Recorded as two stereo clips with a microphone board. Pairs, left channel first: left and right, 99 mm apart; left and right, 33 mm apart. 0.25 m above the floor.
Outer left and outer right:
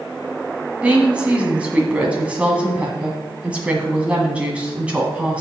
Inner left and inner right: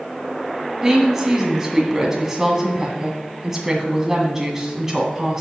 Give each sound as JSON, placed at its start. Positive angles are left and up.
{"t": 0.8, "sound": "a woman speaking", "side_deg": -10, "distance_m": 1.9}